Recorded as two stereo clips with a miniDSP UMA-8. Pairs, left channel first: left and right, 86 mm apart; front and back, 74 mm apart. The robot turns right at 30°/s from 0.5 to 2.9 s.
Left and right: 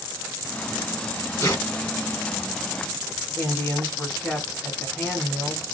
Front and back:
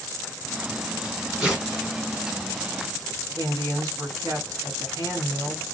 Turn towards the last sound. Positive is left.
turn(degrees=150)